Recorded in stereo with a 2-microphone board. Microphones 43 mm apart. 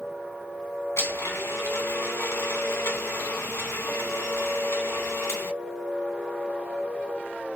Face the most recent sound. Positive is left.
turn(degrees=75)  # may be behind; listen again after turning